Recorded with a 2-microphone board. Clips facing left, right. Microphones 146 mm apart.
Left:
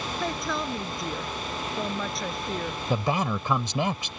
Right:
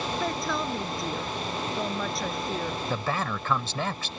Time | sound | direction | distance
0.2 | a woman speaking | centre (ahead or behind) | ?
2.9 | a man speaking | 15° left (ahead or behind) | ?